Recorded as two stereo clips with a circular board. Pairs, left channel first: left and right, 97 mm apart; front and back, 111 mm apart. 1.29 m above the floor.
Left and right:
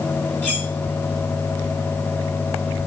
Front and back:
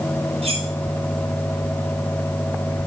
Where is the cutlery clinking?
165° left, 6 m.